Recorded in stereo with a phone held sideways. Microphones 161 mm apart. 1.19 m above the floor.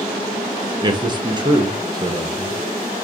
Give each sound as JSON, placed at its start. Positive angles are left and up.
{"t": 0.8, "sound": "a man speaking", "side_deg": -30, "distance_m": 0.8}